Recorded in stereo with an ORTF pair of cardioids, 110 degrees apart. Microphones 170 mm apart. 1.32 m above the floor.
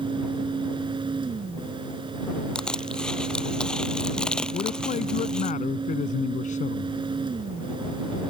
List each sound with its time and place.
0.0 s a fan: 30° right
2.5 s crushing: 5° left
4.5 s a man speaking: 50° left